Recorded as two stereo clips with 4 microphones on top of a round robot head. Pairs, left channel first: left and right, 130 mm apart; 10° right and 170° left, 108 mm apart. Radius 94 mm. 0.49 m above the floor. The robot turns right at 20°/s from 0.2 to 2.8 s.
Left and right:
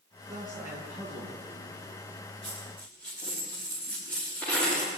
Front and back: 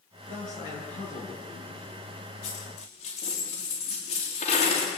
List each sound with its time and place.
0.3 s a man speaking: 20° right, 7.5 m; by 2.0 s 15° left, 7.5 m
2.4 s a dropped coin: straight ahead, 7.5 m; by 4.9 s 10° left, 7.5 m